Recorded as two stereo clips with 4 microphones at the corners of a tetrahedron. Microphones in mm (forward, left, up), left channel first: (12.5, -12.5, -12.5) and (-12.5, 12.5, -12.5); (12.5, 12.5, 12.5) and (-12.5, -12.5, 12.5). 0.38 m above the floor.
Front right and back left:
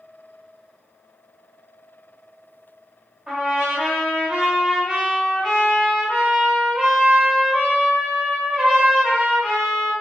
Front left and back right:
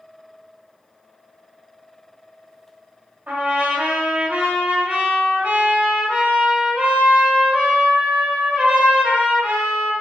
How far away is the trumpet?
About 1.8 m.